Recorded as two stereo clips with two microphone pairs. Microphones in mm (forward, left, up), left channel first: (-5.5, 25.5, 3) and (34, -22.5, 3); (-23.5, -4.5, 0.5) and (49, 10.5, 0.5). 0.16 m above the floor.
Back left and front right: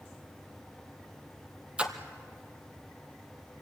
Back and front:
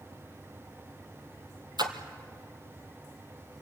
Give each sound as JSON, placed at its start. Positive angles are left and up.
{"t": 1.8, "sound": "a splash", "azimuth_deg": 20, "distance_m": 1.7}